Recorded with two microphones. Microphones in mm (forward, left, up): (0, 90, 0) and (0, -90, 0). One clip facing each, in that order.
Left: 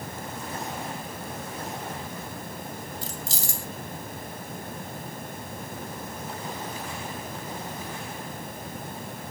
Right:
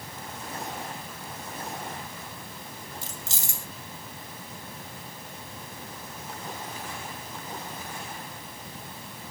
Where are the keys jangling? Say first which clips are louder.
Left 5 dB; 20° right (ahead or behind), 1.7 m.